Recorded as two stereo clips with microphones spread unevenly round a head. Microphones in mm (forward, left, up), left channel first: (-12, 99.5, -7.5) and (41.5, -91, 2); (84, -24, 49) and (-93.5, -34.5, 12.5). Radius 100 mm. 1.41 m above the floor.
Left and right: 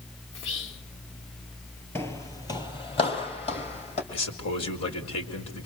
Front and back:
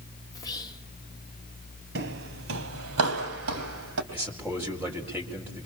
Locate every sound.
0.3 s whispering: 75° left, 2.5 m
1.9 s footsteps: 175° right, 1.8 m; by 4.0 s 165° left, 4 m
4.1 s a man speaking: 100° left, 4.5 m